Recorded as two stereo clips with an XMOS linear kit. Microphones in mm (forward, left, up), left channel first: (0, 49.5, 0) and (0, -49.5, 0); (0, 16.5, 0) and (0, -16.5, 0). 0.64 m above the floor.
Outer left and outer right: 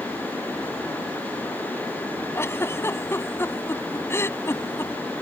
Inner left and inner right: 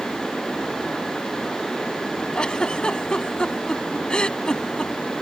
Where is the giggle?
25° left (ahead or behind).